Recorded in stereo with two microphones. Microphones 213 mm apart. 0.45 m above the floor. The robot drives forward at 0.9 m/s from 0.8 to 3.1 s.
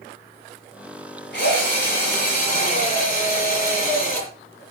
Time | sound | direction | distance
1.3 | a drill | 50° left (ahead or behind) | 7 m